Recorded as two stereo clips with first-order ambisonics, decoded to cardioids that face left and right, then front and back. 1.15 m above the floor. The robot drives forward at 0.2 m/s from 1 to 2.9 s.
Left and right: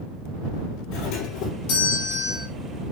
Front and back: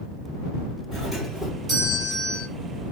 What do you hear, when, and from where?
0.9 s a doorbell: 105° left, 4.5 m; by 2.5 s 110° left, 4.5 m